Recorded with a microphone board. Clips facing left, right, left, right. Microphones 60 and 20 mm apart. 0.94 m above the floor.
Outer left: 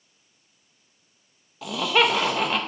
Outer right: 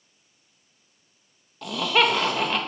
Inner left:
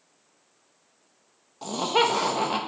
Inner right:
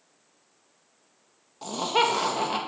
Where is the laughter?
5° left (ahead or behind), 1.3 m.